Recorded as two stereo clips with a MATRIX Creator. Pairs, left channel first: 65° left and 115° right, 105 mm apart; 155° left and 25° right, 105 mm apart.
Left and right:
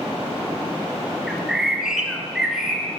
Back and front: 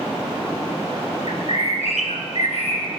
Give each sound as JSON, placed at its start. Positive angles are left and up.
{"t": 1.3, "sound": "a bird", "azimuth_deg": 165, "distance_m": 2.5}